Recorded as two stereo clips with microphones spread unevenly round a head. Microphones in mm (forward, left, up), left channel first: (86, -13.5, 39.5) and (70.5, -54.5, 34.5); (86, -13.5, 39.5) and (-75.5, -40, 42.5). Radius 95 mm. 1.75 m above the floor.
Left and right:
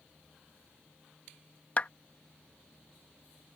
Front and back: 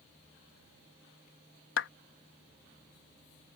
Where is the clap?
15° left.